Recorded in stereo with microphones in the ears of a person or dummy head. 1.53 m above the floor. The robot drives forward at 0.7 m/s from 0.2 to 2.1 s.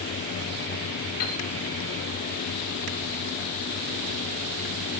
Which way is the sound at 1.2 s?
50° left (ahead or behind).